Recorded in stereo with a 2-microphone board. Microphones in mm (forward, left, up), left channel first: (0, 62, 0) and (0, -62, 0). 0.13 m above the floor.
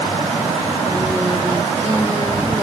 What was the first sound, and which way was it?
Only background noise.